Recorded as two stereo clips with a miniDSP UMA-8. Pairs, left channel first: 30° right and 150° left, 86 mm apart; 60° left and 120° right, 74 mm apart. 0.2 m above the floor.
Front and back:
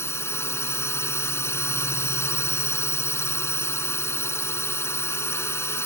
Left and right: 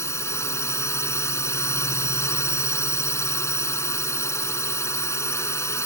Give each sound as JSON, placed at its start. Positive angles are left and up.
{"t": 0.0, "sound": "a drone", "azimuth_deg": 20}